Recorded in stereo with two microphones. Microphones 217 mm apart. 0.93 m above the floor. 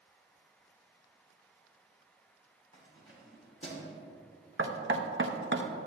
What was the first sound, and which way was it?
Keys jangling, 70° left (ahead or behind).